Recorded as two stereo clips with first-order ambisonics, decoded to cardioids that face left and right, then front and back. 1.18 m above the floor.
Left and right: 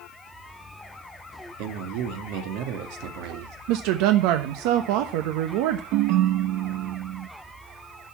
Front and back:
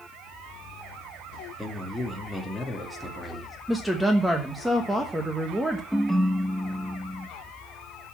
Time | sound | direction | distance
1.6 | a man speaking | 90° right | 2 m
3.7 | a woman speaking | 95° right | 1.0 m
5.9 | a ringtone | 90° right | 0.6 m